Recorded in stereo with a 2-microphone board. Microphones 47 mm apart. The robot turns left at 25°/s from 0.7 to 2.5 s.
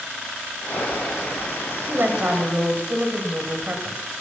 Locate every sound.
1.9 s a woman speaking: 45° right (ahead or behind), 2 m; by 4.0 s 35° right (ahead or behind), 2 m